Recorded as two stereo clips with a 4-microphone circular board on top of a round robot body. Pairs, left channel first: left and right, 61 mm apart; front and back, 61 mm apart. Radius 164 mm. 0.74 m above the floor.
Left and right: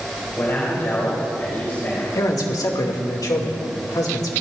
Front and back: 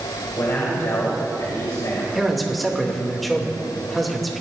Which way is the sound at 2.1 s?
90° left.